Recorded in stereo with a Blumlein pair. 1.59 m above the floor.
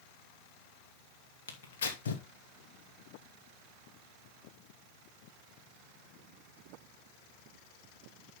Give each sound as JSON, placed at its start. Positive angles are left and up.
{"t": 1.5, "sound": "tearing paper", "azimuth_deg": 65, "distance_m": 2.5}